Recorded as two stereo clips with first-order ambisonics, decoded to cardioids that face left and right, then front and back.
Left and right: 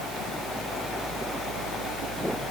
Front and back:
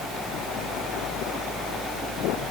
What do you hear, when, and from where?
Only background noise.